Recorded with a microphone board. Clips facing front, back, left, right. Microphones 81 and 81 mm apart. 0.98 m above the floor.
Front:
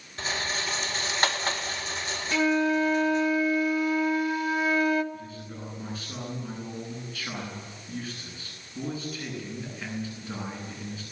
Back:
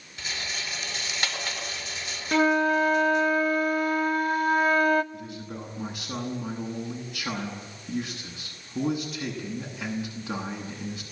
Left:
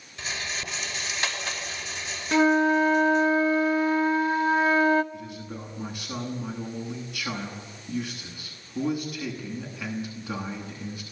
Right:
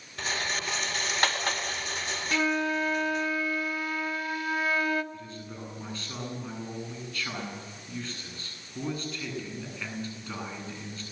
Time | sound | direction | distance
0.2 | a rattle | 55° right | 4 m
2.3 | a flute | 145° left | 1.2 m
5.1 | a man speaking | 165° left | 9.5 m